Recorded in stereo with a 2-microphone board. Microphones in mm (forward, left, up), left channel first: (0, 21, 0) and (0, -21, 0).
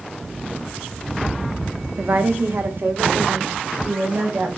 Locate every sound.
2.0 s a woman speaking: 45° right (ahead or behind), 1.2 m; by 4.5 s 60° right (ahead or behind), 3.5 m